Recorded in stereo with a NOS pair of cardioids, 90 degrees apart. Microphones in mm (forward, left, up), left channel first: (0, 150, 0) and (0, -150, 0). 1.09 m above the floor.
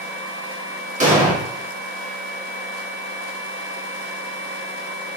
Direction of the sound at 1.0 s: 25° right.